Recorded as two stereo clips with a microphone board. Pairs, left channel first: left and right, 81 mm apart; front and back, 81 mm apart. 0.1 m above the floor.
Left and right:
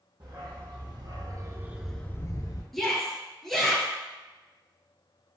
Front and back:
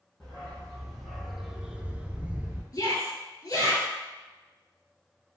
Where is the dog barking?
85° right, 1.7 m; by 2.6 s 110° left, 0.9 m.